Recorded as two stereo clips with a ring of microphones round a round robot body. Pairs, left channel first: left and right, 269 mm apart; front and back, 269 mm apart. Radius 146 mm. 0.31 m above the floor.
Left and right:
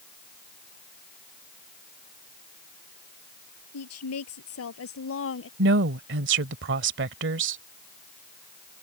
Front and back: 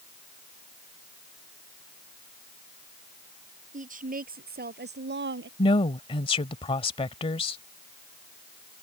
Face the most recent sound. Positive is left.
turn(degrees=-65)